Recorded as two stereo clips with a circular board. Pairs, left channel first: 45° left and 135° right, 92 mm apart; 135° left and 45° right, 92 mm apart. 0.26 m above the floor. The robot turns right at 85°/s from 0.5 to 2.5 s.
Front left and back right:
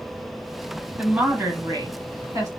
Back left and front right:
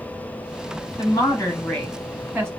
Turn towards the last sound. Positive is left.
turn(degrees=-95)